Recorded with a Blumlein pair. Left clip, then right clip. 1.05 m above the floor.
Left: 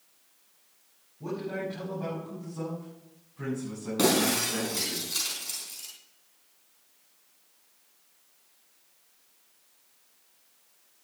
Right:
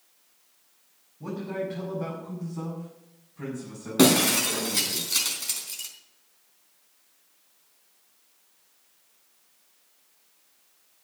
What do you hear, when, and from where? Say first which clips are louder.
1.2 s a man speaking: right 1 dB; 5° right, 6 m; by 5.0 s straight ahead, 8 m
4.0 s breaking glass: right 4 dB; 20° right, 3.5 m